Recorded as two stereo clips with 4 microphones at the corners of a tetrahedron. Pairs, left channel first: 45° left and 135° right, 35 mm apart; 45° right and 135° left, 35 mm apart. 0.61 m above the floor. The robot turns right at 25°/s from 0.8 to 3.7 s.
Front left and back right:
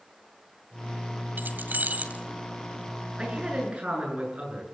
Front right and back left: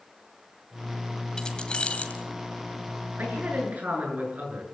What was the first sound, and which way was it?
Keys jangling, 115° right.